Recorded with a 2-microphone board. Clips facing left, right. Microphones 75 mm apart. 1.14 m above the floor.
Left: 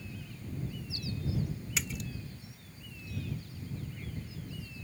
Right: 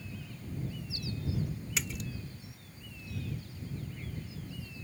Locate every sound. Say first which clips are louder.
1.8 s a splash: even; centre (ahead or behind)